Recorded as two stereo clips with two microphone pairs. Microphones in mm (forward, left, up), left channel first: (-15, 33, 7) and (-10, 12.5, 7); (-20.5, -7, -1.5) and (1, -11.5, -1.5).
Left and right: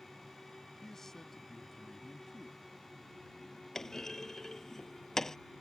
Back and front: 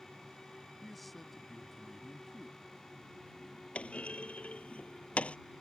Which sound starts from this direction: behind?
A clunk, at 3.8 s.